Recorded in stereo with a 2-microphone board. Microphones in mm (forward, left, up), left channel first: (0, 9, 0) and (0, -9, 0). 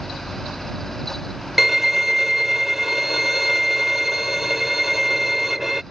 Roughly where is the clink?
I don't hear a clink.